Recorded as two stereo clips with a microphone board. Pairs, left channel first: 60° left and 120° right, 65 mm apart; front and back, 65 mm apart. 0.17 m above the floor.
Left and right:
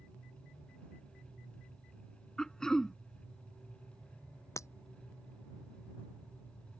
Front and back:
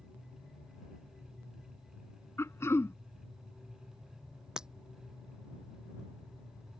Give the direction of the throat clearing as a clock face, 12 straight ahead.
1 o'clock.